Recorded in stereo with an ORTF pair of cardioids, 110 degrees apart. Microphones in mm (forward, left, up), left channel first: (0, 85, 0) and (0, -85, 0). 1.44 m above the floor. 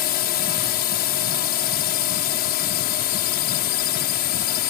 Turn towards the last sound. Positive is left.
turn(degrees=70)